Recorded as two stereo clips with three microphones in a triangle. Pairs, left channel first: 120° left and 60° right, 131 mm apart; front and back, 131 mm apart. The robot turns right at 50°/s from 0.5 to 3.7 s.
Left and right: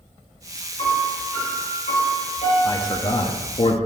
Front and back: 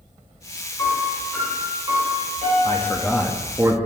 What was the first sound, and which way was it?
A piano, 70° left.